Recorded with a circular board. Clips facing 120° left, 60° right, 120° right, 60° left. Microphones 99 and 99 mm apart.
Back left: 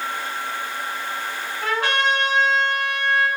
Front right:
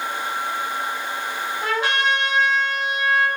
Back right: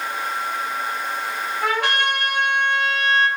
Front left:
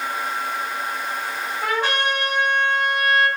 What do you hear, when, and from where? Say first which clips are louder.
1.6 s a trumpet: back left 1 dB, back right 1 dB; 130° right, 1.9 m